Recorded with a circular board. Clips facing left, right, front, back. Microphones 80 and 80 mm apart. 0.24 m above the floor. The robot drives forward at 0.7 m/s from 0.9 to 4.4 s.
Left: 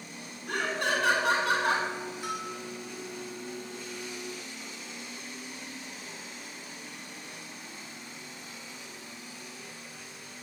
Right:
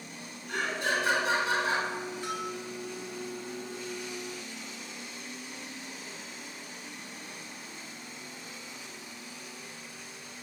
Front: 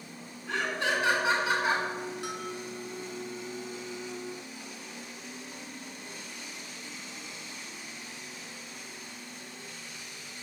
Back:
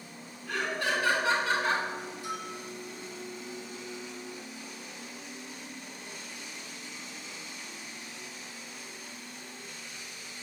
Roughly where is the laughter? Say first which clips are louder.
Left 1 dB, front 1 dB; ahead left.